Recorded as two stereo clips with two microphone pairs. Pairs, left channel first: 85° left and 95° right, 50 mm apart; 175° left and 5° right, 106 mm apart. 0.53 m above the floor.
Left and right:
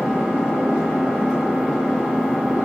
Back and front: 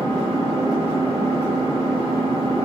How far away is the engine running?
About 9 m.